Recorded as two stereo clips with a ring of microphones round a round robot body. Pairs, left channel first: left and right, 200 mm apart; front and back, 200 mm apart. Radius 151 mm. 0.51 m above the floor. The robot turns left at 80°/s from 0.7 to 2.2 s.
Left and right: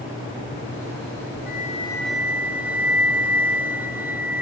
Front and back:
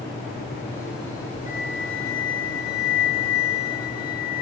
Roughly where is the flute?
Ahead left.